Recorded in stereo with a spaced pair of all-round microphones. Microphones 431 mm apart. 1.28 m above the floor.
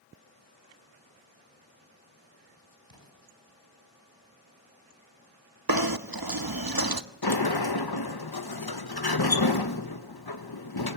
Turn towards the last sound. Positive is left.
turn(degrees=60)  # may be behind; listen again after turning